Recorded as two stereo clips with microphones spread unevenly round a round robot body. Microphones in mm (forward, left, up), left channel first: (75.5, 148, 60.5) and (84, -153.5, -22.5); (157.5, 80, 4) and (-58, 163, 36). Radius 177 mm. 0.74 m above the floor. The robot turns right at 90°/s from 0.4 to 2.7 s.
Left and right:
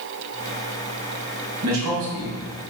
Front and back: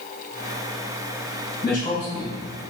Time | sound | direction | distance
1.6 | a man speaking | 125° right | 3 m